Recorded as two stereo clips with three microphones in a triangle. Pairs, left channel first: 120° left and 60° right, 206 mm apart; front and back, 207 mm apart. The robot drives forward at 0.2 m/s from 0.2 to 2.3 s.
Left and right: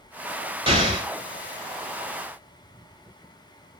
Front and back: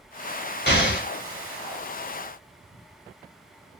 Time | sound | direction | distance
0.7 | an explosion | straight ahead | 0.9 m